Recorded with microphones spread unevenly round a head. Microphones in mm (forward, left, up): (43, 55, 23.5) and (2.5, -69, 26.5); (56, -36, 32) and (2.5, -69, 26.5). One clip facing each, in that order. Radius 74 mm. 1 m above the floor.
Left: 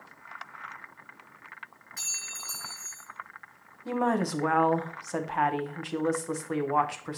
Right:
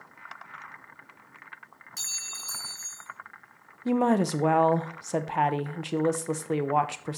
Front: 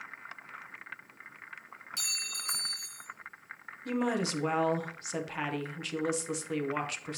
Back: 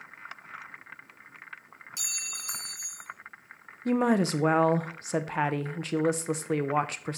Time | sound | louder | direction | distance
2.0 | a clink | left 2 dB, front 1 dB | 70° right | 1.7 m
3.9 | a woman speaking | right 4 dB, back 6 dB | 160° right | 0.6 m